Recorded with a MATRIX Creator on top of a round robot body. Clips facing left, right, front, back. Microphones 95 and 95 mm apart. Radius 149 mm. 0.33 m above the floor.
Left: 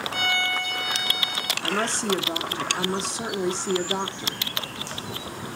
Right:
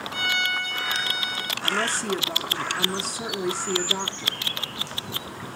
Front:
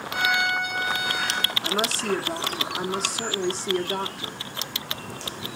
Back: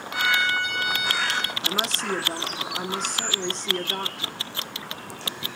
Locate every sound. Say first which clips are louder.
0.1 s a violin: even, even; 60° left, 5 m
1.6 s a woman speaking: left 1 dB, front 6 dB; 80° left, 1.4 m